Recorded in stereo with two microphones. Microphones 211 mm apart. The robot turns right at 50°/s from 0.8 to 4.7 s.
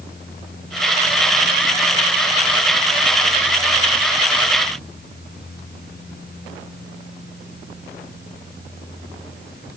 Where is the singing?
I don't hear singing.